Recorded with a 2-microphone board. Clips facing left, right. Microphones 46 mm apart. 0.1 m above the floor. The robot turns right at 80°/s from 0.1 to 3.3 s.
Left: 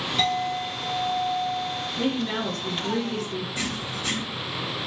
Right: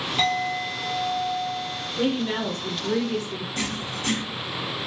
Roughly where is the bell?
No bell in this recording.